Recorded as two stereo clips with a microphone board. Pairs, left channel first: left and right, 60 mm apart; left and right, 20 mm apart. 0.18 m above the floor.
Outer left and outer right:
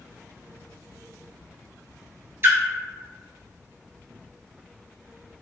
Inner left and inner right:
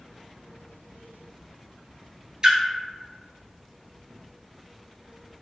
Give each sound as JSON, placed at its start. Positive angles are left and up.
{"t": 2.4, "sound": "a splash", "side_deg": -40, "distance_m": 0.6}